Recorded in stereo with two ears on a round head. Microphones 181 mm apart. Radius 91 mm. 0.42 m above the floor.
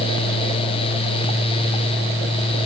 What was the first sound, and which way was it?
Only background noise.